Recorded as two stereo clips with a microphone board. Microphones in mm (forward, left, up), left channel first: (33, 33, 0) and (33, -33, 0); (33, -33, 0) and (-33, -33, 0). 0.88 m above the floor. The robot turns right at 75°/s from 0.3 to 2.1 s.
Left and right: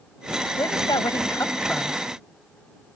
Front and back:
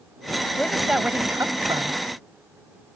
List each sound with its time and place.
0.6 s a woman speaking: 70° left; by 2.0 s straight behind